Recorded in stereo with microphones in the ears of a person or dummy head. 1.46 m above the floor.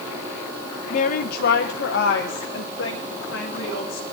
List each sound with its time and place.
0.9 s a woman speaking: 40° left (ahead or behind), 0.7 m; by 4.0 s 85° left, 2.5 m